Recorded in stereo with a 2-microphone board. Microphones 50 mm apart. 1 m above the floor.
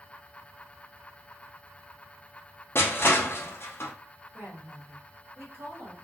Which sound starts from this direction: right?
A woman speaking, at 4.3 s.